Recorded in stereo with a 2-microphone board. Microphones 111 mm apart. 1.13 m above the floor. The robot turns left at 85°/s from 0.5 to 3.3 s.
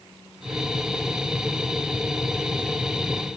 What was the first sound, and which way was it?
Only background noise.